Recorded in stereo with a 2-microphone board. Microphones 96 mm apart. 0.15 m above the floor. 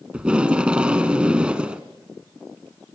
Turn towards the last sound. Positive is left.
turn(degrees=-10)  # may be behind; listen again after turning